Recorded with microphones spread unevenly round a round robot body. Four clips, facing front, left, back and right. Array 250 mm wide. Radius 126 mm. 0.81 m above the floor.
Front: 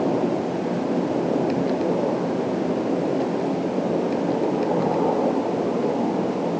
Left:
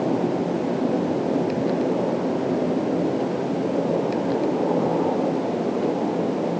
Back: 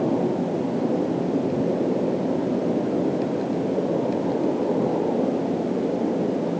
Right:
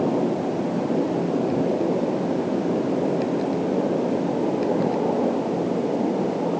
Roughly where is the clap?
No clap in this recording.